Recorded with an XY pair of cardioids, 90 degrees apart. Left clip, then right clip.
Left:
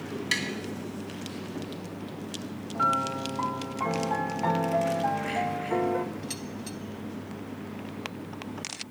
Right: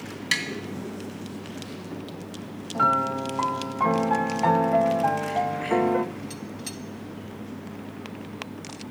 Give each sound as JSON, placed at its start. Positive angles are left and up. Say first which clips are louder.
{"t": 0.3, "sound": "tapping", "louder": "right 3 dB", "azimuth_deg": -30, "distance_m": 2.5}
{"t": 2.8, "sound": "a piano", "louder": "right 4 dB", "azimuth_deg": -45, "distance_m": 0.6}